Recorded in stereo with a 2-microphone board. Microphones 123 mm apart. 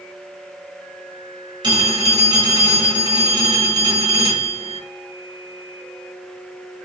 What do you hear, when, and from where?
1.6 s a phone ringing: 40° right (ahead or behind), 1.7 m